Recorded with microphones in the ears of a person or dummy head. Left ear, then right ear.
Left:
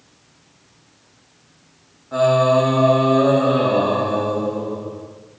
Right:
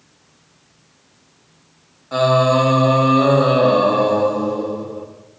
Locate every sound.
2.1 s singing: 80° right, 3 m